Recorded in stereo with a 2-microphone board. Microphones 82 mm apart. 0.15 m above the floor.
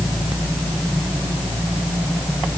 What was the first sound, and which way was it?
Only background noise.